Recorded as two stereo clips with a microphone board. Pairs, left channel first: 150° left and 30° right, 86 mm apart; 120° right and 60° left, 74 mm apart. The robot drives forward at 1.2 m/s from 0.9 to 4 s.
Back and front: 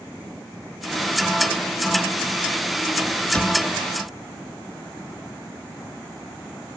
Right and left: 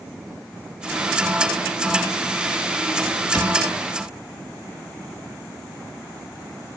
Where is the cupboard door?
135° right, 2 m; by 3.6 s 140° right, 2 m.